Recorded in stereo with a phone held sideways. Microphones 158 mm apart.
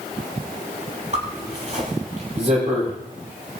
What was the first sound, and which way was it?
A zipper, 50° right (ahead or behind).